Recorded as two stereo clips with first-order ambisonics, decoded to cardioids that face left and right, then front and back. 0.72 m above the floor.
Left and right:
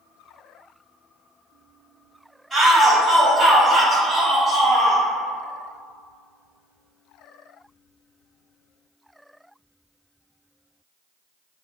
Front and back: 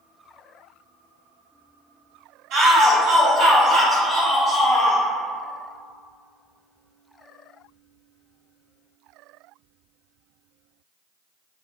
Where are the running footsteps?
No running footsteps in this recording.